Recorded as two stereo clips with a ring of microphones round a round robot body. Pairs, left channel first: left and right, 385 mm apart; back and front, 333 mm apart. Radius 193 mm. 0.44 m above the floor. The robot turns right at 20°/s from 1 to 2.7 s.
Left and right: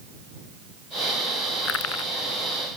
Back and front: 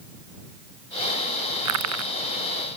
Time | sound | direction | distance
1.6 | crushing | 30° left | ?